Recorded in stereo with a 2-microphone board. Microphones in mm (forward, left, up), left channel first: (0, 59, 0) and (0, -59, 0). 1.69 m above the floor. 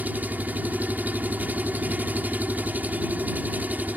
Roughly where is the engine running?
Centre.